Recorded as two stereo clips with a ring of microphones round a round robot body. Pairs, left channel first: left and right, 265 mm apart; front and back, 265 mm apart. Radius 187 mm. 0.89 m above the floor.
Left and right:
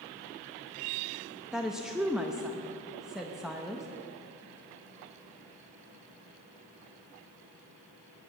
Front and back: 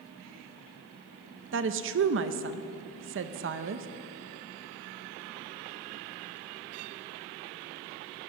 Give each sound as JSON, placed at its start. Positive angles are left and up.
{"t": 1.5, "sound": "a woman speaking", "azimuth_deg": 180, "distance_m": 0.6}